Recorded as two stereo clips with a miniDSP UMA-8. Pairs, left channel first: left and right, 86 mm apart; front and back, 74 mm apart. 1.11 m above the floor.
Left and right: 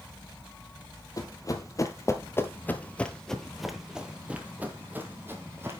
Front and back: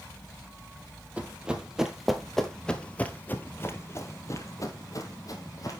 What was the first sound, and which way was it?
Running footsteps, 115° left.